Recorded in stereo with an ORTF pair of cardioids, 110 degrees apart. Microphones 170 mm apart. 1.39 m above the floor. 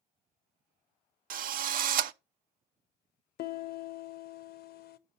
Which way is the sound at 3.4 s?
60° left.